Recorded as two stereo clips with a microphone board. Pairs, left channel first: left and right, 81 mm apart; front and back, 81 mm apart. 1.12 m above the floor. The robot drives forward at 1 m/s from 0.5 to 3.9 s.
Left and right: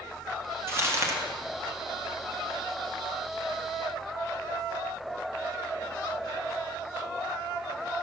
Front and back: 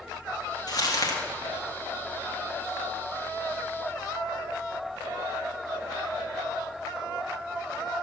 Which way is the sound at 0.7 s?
35° right.